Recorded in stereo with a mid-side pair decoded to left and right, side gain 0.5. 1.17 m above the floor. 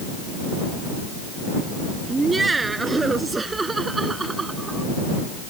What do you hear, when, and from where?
2.1 s laughter: 20° right; by 4.9 s 30° right